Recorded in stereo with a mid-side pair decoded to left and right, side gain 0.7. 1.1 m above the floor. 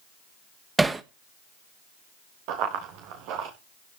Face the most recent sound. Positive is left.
turn(degrees=-70)